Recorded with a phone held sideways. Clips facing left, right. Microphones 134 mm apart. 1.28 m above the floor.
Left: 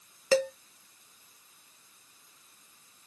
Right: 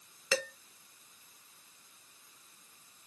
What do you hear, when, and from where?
0.3 s dishes clattering: 40° left (ahead or behind), 1.1 m